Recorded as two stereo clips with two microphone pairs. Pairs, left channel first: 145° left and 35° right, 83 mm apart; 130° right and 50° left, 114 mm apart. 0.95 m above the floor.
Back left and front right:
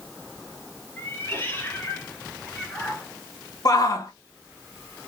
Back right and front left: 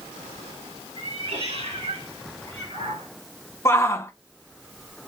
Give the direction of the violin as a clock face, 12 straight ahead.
No violin in this recording.